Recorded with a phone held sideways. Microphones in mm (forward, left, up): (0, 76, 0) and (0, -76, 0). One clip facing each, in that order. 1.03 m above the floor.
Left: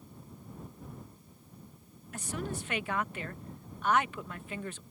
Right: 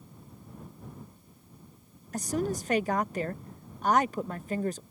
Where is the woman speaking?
40° right (ahead or behind).